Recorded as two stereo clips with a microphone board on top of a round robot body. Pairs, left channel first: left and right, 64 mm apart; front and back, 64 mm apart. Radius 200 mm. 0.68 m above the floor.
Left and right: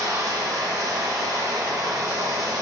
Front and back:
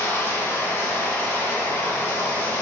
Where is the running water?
50° right, 3 m.